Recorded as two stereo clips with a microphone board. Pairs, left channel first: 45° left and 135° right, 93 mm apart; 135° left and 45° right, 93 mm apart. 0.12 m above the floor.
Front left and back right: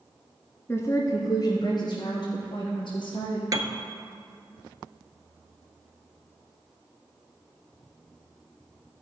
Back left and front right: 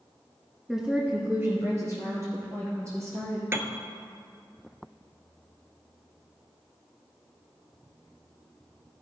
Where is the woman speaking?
40° left, 1.1 m; by 3.4 s 10° left, 4 m.